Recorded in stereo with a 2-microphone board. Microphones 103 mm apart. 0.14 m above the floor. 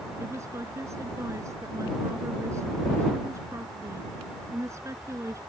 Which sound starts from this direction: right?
A woman speaking, at 0.2 s.